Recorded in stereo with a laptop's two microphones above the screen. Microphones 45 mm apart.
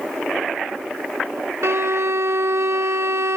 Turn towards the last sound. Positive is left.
turn(degrees=-75)  # may be behind; listen again after turning